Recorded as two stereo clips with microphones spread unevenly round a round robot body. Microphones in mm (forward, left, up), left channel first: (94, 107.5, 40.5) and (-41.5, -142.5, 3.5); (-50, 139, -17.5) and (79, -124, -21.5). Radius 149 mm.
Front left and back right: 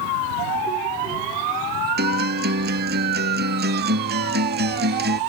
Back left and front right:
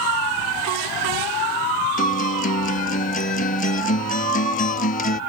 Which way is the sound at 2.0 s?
Straight behind.